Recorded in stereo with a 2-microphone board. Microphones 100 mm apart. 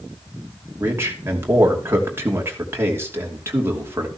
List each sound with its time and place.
0.8 s a man speaking: 25° right (ahead or behind), 2.5 m